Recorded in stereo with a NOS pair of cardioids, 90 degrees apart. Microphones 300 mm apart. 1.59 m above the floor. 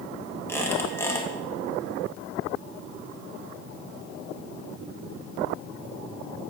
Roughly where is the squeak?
Ahead.